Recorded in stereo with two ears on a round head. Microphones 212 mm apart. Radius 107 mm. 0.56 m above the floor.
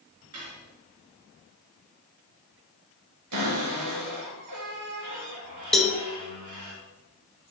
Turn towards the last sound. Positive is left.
turn(degrees=0)  # may be behind; listen again after turning